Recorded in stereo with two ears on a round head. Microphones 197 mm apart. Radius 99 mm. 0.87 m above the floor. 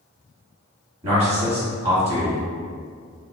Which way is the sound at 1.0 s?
30° right (ahead or behind).